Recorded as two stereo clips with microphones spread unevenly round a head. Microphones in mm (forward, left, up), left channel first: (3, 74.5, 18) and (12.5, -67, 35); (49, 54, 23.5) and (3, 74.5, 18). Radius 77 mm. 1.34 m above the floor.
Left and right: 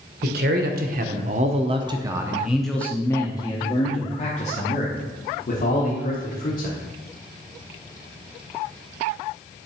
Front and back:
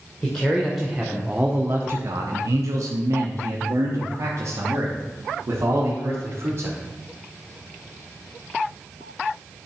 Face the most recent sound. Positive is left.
turn(degrees=125)